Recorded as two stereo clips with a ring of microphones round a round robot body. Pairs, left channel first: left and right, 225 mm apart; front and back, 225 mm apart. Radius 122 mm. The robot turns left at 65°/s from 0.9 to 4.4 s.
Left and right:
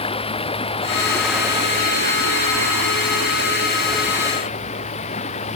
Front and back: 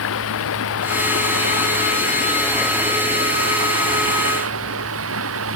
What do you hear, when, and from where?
0.0 s running water: 25° left; by 5.6 s 155° left